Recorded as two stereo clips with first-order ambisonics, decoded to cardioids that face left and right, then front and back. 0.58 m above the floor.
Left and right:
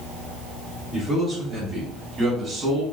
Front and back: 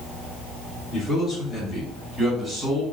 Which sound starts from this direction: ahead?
A man speaking, at 0.9 s.